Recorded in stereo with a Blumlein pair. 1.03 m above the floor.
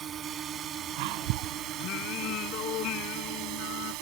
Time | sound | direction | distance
0.0 | a drone | 25° right | ?
1.8 | singing | 35° left | ?